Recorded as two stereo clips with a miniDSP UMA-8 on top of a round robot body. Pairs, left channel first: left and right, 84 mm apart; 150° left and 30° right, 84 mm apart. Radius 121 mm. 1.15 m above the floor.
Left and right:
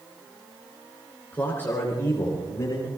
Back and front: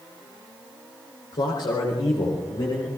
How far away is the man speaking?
About 3.5 m.